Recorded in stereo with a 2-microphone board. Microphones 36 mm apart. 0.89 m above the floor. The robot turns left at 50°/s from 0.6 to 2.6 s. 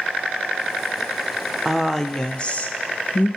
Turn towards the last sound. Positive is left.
turn(degrees=140)